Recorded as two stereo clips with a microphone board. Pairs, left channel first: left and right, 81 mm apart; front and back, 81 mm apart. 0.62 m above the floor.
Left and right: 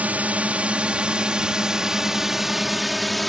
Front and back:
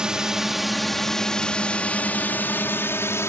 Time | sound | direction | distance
0.0 | a drone | 120° right | ?